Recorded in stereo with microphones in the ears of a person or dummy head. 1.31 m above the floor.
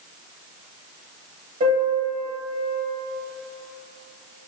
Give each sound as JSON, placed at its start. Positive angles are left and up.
{"t": 1.6, "sound": "a piano", "side_deg": -40, "distance_m": 0.9}